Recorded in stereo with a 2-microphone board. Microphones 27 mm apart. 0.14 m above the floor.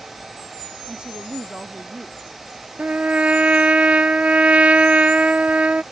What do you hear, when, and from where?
0.9 s a woman speaking: 30° right (ahead or behind)
2.8 s a trumpet: 55° right (ahead or behind)